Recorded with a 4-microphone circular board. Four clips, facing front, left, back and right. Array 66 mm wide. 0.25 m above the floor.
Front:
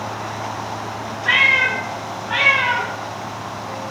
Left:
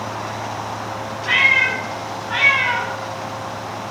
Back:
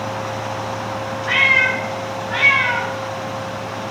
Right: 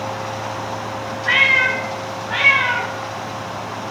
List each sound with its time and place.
1.2 s a cat meowing: 10° left, 3.5 m; by 2.9 s 5° right, 3 m